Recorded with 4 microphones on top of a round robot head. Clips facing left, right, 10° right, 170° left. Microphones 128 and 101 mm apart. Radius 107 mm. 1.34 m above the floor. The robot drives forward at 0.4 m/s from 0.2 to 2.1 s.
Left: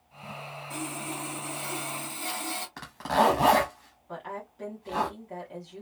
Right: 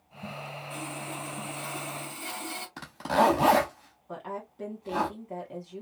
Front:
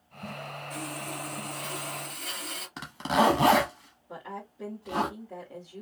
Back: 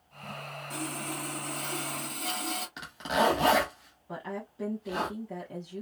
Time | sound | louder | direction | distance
0.7 | sawing | left 3 dB, back 2 dB | 125° left | 1.7 m
2.8 | a zipper | even, front 4 dB | 30° right | 0.6 m
4.1 | a woman speaking | right 1 dB, back 2 dB | 150° right | 1.1 m